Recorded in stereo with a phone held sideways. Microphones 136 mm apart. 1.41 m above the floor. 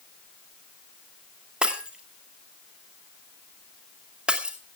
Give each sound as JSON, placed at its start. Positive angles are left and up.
{"t": 1.6, "sound": "breaking glass", "side_deg": -5, "distance_m": 2.0}